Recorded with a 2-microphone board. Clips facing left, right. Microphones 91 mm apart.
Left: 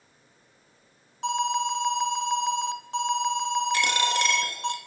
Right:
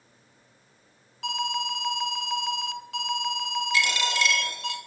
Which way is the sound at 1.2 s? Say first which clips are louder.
Left 5 dB; 30° left (ahead or behind).